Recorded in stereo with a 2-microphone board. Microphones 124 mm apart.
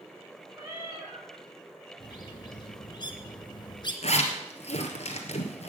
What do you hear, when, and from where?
0.6 s a cat meowing: 25° right (ahead or behind), 7.5 m
2.0 s a bird: 40° left (ahead or behind), 2 m
4.0 s a zipper: 60° left (ahead or behind), 2.5 m